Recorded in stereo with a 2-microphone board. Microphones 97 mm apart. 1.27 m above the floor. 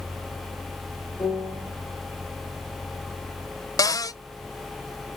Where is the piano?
40° left (ahead or behind), 2.5 m.